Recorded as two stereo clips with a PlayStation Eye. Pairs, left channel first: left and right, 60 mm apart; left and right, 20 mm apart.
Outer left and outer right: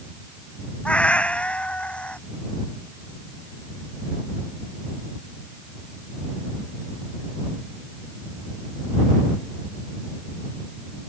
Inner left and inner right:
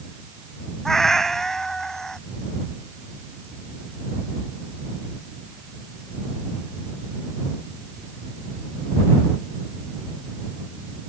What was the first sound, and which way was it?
A cat meowing, 20° left (ahead or behind).